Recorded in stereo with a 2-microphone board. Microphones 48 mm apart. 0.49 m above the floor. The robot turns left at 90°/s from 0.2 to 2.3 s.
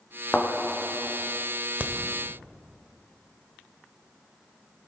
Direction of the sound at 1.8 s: 35° right (ahead or behind).